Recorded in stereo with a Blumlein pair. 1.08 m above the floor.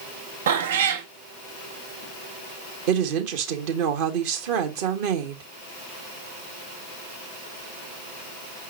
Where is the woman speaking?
50° right, 1.4 m.